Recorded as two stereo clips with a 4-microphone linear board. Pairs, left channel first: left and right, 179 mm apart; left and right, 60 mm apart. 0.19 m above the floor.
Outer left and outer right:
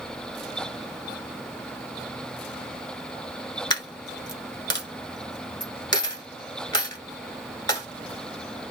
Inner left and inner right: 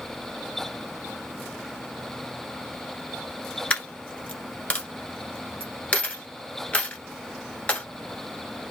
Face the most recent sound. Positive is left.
turn(degrees=25)  # may be behind; listen again after turning